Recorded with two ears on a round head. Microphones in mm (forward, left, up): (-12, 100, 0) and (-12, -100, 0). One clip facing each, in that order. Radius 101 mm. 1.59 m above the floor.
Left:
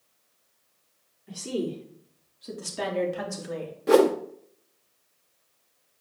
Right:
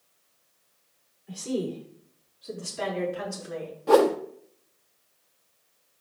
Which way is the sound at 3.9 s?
25° left (ahead or behind).